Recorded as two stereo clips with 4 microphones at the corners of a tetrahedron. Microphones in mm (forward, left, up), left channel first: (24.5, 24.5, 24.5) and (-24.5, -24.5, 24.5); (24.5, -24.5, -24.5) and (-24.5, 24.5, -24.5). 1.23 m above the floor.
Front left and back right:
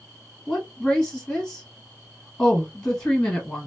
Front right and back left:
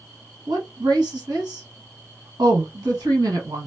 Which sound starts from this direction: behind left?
A woman speaking, at 0.5 s.